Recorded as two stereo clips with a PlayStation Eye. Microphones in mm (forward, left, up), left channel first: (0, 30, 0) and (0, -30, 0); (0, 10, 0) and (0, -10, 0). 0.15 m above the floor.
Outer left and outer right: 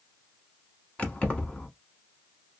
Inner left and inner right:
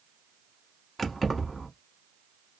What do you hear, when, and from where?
1.0 s keys jangling: 20° left (ahead or behind), 0.9 m